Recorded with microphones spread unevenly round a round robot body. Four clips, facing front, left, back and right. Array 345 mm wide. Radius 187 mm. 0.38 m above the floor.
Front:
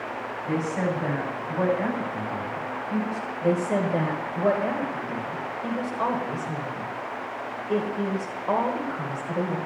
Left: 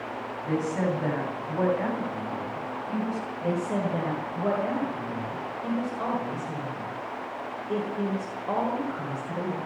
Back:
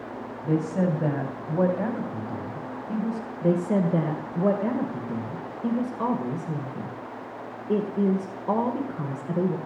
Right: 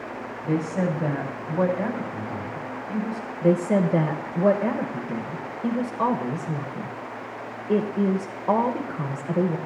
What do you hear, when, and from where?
0.4 s a woman speaking: 160° right, 3 m
3.4 s a woman speaking: 135° right, 1.6 m